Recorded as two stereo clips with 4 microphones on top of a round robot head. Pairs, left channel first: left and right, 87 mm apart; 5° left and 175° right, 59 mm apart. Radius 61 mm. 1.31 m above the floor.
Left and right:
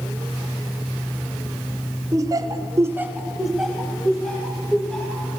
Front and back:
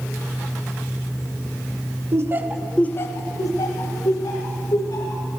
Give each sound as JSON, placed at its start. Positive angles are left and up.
{"t": 2.1, "sound": "laughter", "azimuth_deg": -140, "distance_m": 0.8}